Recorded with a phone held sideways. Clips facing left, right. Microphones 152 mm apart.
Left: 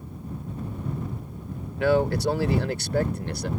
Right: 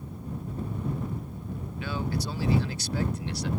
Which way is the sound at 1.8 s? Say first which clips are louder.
Left 12 dB; 75° left (ahead or behind).